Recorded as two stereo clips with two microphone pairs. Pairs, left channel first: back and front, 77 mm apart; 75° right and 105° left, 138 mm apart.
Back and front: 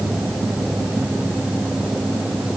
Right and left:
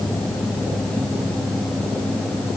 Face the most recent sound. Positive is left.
No sound to turn to.